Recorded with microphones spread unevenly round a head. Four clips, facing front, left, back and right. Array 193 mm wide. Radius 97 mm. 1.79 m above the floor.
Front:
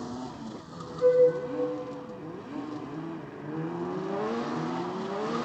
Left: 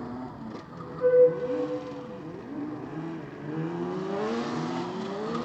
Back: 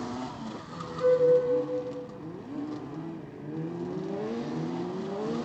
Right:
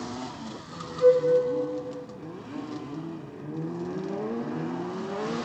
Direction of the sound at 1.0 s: 95° right.